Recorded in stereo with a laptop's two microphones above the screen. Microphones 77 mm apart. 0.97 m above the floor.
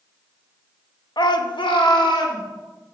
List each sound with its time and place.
1.2 s a shout: 65° left (ahead or behind), 0.8 m; by 2.4 s 85° left, 2 m